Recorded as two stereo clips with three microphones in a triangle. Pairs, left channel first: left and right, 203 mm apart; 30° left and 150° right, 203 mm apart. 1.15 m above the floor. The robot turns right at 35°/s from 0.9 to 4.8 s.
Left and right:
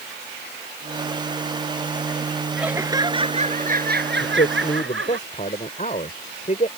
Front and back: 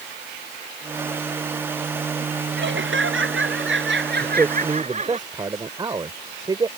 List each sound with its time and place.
2.6 s laughter: 175° right; by 5.2 s 95° right
4.2 s a man speaking: 120° left; by 6.7 s 140° left